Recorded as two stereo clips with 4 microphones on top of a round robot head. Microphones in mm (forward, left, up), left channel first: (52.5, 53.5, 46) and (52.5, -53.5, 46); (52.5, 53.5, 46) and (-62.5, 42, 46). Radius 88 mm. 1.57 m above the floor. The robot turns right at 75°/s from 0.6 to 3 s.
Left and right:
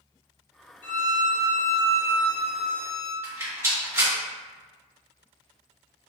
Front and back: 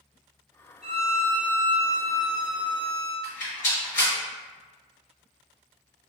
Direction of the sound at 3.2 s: 25° right.